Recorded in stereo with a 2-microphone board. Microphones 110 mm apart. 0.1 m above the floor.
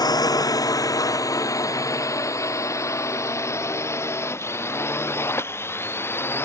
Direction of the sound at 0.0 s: 35° left (ahead or behind).